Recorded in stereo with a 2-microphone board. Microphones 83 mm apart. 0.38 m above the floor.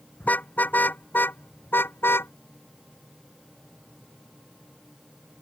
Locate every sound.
0.2 s a car horn: 20° left (ahead or behind); by 2.3 s 25° left (ahead or behind)